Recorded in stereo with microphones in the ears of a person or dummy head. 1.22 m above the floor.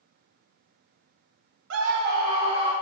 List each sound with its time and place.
1.7 s a scream: 65° right (ahead or behind), 0.5 m; by 2.7 s 35° right (ahead or behind), 1.6 m